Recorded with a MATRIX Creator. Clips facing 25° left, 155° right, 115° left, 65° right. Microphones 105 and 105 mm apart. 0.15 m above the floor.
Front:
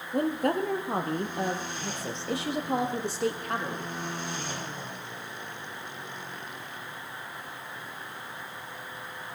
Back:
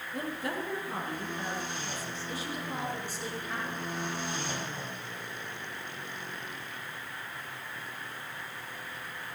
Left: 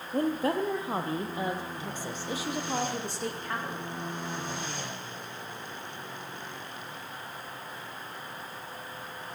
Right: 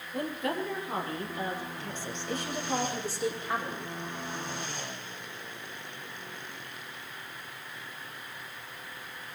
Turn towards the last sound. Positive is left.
turn(degrees=10)